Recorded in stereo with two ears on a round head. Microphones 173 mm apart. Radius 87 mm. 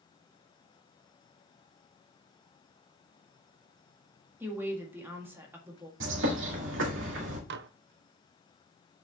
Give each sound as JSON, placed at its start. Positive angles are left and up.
{"t": 4.4, "sound": "a woman speaking", "side_deg": -10, "distance_m": 1.8}
{"t": 6.0, "sound": "a bird", "side_deg": -65, "distance_m": 2.0}
{"t": 7.5, "sound": "dishes clattering", "side_deg": -55, "distance_m": 0.5}